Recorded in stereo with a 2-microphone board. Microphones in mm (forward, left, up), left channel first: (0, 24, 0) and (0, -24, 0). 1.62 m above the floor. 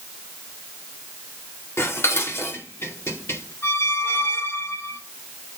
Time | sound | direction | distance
1.8 | dishes clattering | 65° left (ahead or behind) | 2.5 m
3.6 | a squeak | 50° left (ahead or behind) | 9 m